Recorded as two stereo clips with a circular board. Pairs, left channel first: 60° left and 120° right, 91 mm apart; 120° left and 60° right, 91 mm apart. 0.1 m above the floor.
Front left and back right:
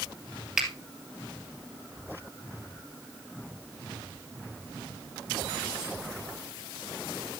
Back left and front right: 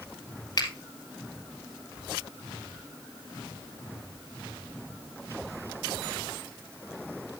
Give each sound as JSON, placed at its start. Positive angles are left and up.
{"t": 0.6, "sound": "a finger snap", "azimuth_deg": 160, "distance_m": 2.0}